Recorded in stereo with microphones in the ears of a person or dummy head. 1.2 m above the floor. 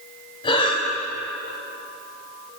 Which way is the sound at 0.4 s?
35° left (ahead or behind).